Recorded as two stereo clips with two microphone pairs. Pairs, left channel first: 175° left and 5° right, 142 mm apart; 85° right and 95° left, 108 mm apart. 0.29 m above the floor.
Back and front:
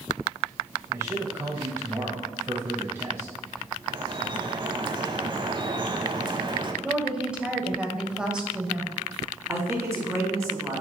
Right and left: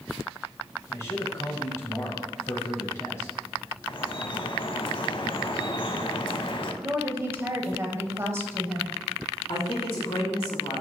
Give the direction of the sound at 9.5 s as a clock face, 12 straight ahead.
3 o'clock.